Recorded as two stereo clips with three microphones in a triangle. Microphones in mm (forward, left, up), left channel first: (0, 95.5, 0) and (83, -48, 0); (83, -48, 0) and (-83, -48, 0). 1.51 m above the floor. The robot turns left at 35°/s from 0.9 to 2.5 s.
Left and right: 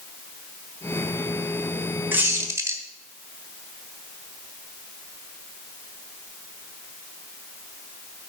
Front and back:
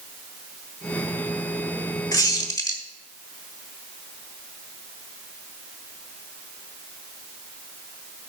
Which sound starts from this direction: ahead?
A squeak, at 2.1 s.